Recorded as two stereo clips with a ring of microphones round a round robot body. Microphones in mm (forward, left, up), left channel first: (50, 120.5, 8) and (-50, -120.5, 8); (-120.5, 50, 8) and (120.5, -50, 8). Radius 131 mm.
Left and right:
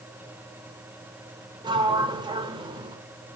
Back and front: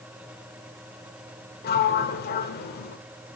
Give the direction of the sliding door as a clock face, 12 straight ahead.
6 o'clock.